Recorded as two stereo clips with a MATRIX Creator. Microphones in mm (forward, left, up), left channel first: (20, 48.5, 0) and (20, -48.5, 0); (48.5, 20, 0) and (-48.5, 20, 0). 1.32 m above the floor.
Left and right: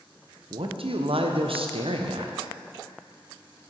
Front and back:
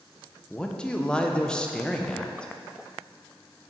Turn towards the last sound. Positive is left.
turn(degrees=-80)